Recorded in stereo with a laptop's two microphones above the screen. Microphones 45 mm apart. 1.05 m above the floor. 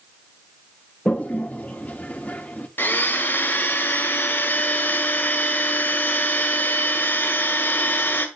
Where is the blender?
50° left (ahead or behind), 1.7 m.